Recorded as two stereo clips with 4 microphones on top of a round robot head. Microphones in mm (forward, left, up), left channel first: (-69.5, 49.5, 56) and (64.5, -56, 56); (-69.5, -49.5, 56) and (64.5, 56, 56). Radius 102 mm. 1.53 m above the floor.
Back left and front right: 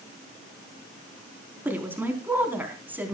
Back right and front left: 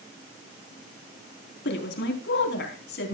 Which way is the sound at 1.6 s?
120° right.